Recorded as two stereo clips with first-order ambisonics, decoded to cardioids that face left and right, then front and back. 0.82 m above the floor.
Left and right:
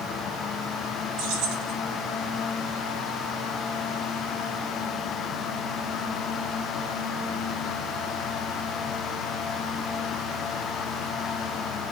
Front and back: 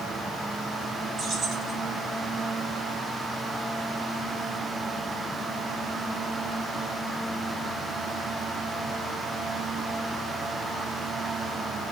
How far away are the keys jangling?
About 4 m.